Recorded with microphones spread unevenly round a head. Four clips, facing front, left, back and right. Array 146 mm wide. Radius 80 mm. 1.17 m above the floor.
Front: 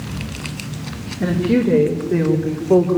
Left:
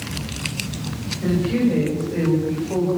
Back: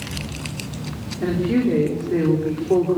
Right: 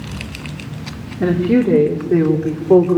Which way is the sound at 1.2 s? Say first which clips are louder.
Right 5 dB, front 3 dB; 85° right.